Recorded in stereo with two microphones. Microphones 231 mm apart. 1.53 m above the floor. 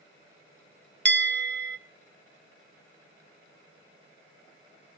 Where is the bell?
50° right (ahead or behind), 0.8 m.